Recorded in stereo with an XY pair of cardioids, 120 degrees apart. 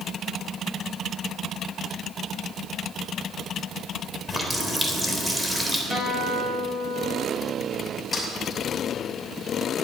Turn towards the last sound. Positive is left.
turn(degrees=15)